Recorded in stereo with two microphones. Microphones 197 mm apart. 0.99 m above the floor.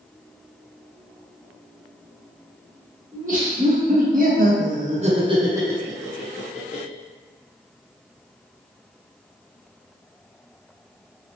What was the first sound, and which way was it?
Laughter, 45° right (ahead or behind).